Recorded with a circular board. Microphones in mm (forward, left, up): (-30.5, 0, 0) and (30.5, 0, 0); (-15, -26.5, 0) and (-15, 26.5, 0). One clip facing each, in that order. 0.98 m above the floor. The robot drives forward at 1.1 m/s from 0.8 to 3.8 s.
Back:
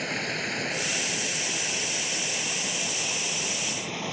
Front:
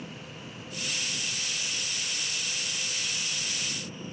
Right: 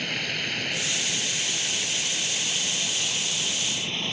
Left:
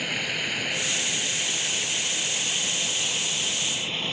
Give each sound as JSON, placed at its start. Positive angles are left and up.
{"t": 0.0, "sound": "running water", "azimuth_deg": 175}